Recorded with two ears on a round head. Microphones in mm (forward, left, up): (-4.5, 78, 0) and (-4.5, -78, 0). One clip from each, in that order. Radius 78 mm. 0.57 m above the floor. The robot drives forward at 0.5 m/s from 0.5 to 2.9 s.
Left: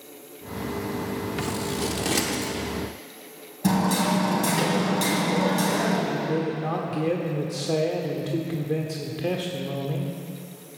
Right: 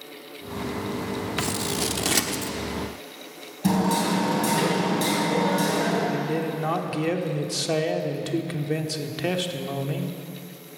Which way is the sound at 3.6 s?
5° left (ahead or behind).